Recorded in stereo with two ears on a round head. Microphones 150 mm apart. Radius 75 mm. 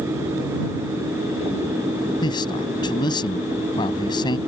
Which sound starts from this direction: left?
A man speaking, at 2.2 s.